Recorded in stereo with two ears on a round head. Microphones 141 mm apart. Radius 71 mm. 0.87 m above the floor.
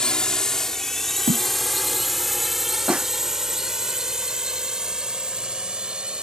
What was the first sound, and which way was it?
A drone, 5° left (ahead or behind).